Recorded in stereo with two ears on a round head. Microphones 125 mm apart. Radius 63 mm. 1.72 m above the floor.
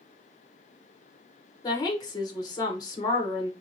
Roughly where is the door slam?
No door slam in this recording.